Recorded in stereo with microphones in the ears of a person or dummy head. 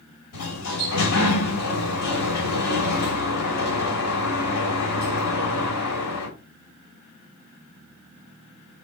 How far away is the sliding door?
About 3 m.